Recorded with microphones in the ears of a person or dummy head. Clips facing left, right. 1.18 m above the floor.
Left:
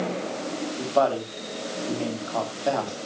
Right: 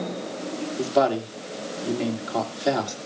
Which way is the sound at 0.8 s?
25° right (ahead or behind).